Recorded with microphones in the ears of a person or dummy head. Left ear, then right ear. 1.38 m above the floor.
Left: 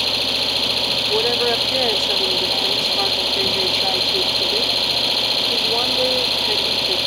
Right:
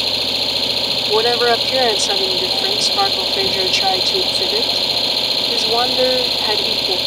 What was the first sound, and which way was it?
An engine running, 5° right (ahead or behind).